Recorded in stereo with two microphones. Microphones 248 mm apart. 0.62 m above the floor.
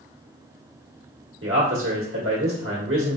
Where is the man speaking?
60° right (ahead or behind), 1.3 m.